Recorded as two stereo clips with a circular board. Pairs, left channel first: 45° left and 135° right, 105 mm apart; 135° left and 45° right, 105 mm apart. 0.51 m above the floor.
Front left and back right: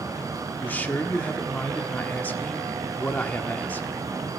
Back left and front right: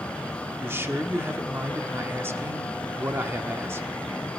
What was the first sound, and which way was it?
A man speaking, 10° right.